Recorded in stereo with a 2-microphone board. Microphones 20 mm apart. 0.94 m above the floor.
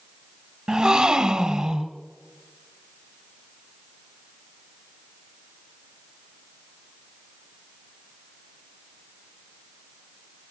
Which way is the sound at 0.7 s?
35° right (ahead or behind).